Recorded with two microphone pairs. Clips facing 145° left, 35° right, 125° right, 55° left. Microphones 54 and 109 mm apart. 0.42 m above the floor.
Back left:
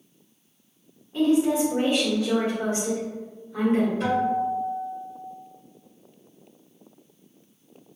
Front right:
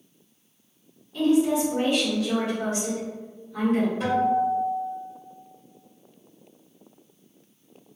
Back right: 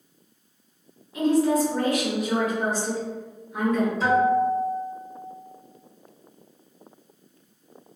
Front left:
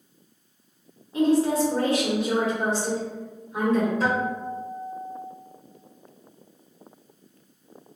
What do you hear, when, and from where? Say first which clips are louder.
1.1 s a woman speaking: even, even; 100° left, 1.2 m
4.0 s a guitar: front right 1 dB, back right 6 dB; 50° left, 1.7 m